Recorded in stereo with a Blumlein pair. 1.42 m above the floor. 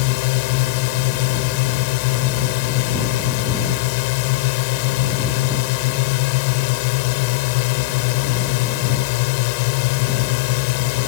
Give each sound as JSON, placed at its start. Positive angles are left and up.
{"t": 0.0, "sound": "a drone", "azimuth_deg": 45}